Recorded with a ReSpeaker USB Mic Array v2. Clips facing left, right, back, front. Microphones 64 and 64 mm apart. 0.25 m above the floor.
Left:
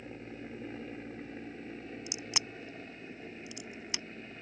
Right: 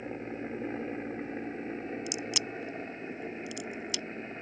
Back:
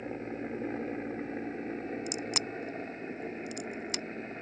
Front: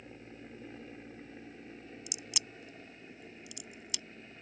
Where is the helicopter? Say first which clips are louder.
Right 7 dB, back 13 dB; 140° right.